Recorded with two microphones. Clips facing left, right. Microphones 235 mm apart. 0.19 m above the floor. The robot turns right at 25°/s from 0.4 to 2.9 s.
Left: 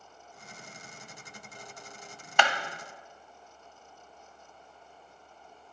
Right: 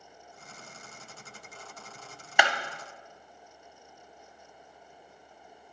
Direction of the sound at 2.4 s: 10° right (ahead or behind).